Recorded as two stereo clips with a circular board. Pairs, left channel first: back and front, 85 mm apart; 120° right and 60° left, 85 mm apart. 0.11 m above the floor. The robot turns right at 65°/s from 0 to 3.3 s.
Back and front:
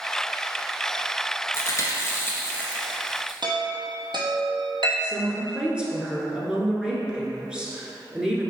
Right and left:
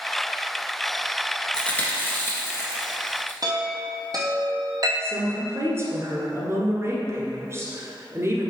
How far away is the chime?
About 1.4 m.